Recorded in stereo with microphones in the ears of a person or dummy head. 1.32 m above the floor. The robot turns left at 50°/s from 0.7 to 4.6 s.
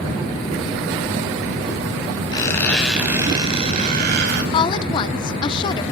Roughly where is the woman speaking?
Left.